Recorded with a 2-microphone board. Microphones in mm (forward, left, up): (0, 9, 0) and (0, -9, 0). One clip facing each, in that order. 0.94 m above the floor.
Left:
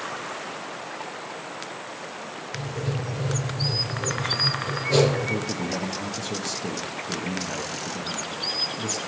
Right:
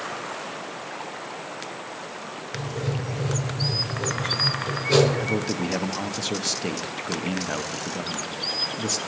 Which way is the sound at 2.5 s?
55° right (ahead or behind).